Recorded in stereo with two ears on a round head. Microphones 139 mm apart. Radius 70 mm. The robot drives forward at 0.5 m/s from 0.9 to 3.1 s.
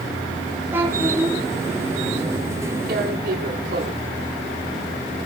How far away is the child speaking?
About 4 m.